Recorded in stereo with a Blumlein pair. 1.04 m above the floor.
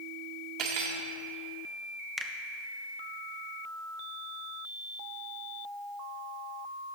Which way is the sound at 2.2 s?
5° left.